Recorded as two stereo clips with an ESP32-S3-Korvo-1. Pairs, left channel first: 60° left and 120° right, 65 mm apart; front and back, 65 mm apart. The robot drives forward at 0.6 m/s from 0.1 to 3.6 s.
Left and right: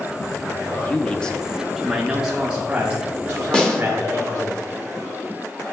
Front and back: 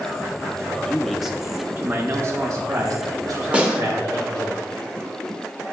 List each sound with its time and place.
0.7 s a man speaking: 40° left, 0.7 m; by 4.5 s 170° left, 1.6 m
3.5 s a snare drum: 120° left, 1.0 m; by 3.8 s 125° left, 1.0 m